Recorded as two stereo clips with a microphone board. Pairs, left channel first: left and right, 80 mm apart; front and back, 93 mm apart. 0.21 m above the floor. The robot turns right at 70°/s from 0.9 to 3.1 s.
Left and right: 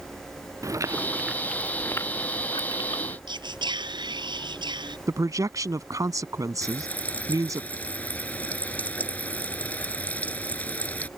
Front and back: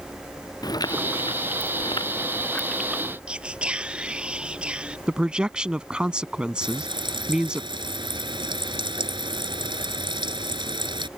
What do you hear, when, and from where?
0.6 s chewing: 40° right; by 3.2 s 110° left
3.3 s whispering: 100° right
5.1 s a man speaking: 105° right
6.6 s frying: 160° left